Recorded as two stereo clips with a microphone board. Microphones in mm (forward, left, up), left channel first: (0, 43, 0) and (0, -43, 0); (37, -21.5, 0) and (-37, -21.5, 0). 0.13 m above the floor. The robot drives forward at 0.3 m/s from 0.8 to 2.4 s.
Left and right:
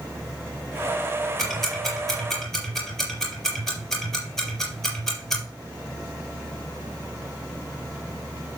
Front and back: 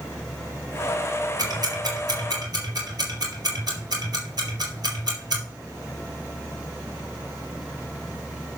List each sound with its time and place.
1.4 s ticking: 175° left, 3.5 m